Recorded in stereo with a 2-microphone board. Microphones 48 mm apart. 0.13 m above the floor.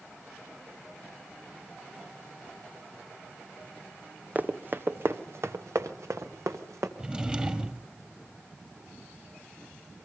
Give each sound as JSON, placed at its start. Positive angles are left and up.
{"t": 4.3, "sound": "running footsteps", "side_deg": -35, "distance_m": 1.4}
{"t": 7.0, "sound": "a drawer", "side_deg": -20, "distance_m": 1.5}